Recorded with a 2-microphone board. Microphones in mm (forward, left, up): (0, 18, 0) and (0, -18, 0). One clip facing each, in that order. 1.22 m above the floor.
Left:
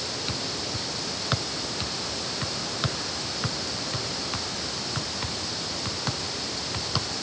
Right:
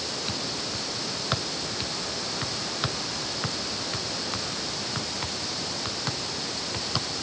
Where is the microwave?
I don't hear a microwave.